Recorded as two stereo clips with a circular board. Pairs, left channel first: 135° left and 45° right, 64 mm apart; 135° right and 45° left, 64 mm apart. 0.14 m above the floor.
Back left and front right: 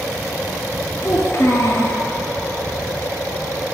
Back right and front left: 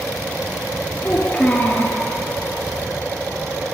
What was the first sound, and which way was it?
A child speaking, 160° left.